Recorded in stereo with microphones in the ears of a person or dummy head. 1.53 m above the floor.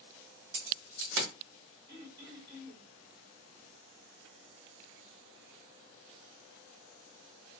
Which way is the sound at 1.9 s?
25° right (ahead or behind).